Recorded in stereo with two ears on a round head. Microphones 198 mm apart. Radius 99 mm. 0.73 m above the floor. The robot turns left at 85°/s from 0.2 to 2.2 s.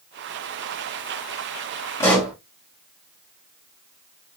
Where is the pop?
15° left (ahead or behind), 1.3 m; by 2.3 s centre (ahead or behind), 1.3 m.